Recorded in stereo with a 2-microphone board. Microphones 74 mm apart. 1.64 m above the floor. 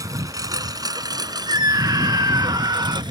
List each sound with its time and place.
0.0 s a lawn mower: 50° right (ahead or behind); by 3.1 s 70° right (ahead or behind)
1.5 s a scream: 60° right (ahead or behind)